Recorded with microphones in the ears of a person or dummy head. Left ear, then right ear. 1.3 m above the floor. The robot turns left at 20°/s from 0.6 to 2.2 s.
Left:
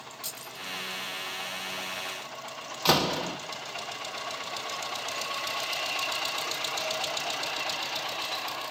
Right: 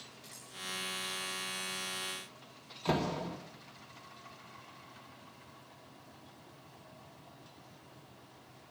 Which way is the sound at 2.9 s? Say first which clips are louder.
Left 9 dB; 50° left (ahead or behind).